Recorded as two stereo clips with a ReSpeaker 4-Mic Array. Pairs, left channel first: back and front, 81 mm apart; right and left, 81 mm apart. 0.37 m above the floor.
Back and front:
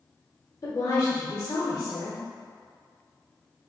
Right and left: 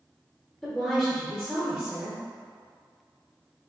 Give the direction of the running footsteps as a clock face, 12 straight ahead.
No running footsteps in this recording.